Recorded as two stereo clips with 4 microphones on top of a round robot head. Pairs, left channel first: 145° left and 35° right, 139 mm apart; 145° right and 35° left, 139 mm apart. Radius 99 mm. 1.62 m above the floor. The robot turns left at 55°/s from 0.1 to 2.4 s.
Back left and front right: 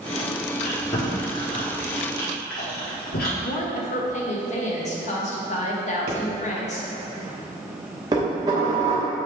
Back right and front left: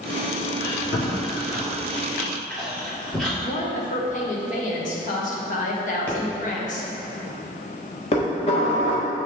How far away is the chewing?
About 1.8 m.